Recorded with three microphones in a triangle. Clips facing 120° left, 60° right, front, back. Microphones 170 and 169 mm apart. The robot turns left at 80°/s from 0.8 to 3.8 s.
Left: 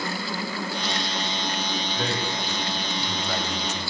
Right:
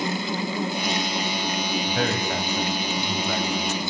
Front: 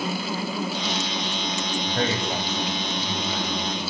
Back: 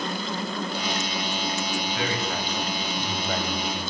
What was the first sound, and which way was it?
A man speaking, 30° right.